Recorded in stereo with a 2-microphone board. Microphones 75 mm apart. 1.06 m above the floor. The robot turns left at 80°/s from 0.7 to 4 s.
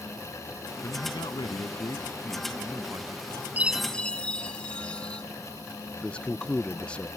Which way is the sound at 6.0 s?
15° left (ahead or behind).